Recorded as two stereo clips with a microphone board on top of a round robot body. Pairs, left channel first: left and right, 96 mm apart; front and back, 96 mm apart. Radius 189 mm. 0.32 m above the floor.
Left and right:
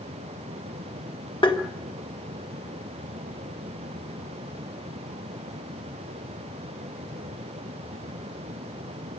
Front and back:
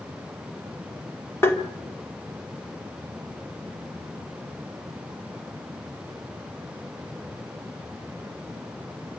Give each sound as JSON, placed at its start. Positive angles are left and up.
{"t": 1.4, "sound": "tapping", "azimuth_deg": 60, "distance_m": 2.0}